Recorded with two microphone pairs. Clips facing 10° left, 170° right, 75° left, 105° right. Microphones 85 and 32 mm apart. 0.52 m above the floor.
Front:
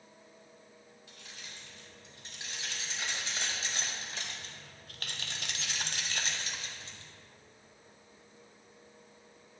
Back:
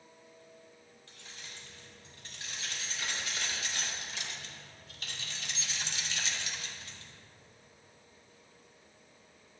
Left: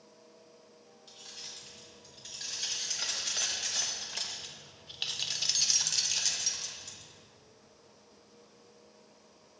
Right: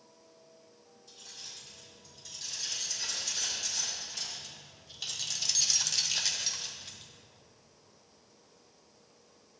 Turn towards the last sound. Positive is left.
turn(degrees=-55)